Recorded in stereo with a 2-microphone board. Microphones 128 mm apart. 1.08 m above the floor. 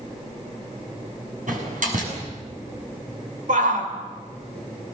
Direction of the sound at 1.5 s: 80° right.